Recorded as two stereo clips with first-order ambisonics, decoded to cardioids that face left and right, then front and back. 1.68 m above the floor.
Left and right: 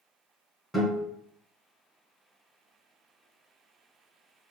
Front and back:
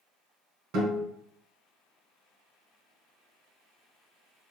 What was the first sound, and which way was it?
A guitar, 170° right.